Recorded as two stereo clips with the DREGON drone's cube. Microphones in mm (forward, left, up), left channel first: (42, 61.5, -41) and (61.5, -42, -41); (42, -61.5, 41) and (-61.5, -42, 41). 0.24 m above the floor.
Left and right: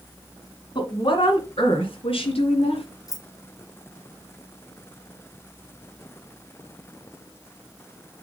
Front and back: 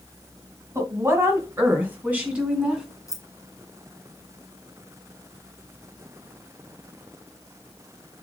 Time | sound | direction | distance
0.8 | a woman speaking | 115° left | 2.5 m
3.1 | keys jangling | 45° left | 1.6 m